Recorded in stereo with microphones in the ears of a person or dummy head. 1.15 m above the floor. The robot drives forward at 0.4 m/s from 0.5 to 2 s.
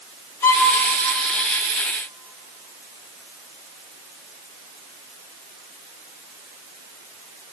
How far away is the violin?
About 1.1 m.